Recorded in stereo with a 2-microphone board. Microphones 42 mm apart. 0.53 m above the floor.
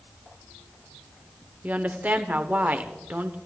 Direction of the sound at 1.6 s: 40° right (ahead or behind).